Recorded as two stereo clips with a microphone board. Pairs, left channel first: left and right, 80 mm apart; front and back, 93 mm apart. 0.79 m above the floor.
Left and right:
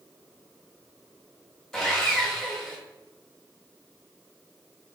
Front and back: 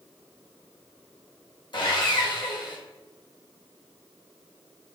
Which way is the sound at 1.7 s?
10° left.